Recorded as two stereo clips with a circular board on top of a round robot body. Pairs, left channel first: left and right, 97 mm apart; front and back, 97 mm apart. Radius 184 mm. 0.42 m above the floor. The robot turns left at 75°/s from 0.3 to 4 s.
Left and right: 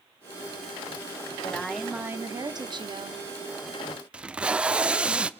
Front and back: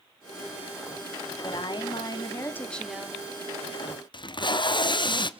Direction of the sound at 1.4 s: 20° left.